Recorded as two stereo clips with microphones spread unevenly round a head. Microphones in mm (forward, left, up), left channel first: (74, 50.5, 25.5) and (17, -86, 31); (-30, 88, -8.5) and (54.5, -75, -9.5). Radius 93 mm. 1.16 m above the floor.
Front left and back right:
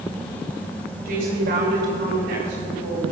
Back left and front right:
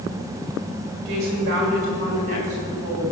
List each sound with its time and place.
1.1 s a woman speaking: 100° right, 4.5 m; by 3.0 s 115° right, 7 m